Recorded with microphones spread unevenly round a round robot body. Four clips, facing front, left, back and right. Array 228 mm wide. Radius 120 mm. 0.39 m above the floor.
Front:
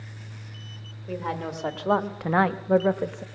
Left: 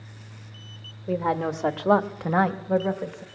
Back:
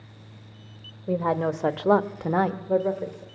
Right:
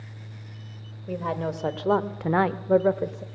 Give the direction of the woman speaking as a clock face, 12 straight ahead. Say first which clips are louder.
Left 4 dB, back 7 dB; 7 o'clock.